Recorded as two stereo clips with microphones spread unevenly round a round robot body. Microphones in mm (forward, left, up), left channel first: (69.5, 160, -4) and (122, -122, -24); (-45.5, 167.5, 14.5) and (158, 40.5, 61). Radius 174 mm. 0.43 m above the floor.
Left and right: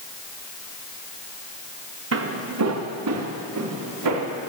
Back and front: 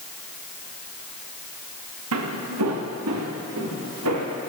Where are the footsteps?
45° right, 2 m; by 4.5 s 75° right, 3.5 m.